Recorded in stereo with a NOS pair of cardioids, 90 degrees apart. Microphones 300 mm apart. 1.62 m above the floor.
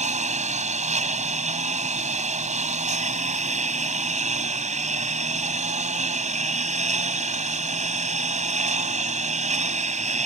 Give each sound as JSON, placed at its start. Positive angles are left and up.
{"t": 0.0, "sound": "a lawn mower", "azimuth_deg": -25}